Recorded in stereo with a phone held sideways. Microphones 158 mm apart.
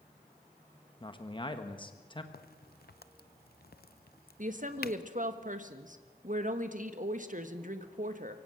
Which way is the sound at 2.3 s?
75° left (ahead or behind).